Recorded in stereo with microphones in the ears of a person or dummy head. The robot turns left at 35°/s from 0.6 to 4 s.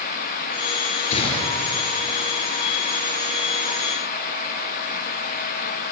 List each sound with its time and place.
1.1 s a gunshot: 35° left (ahead or behind), 5 m; by 1.8 s 10° left (ahead or behind), 5 m